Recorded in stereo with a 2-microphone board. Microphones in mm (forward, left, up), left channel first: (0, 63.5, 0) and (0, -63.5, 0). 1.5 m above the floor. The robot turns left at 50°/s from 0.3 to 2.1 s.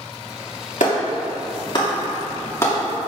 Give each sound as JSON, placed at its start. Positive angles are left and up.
{"t": 0.8, "sound": "a clap", "side_deg": 80, "distance_m": 2.5}